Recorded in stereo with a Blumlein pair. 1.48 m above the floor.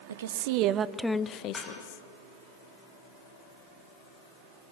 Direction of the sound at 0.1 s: 65° right.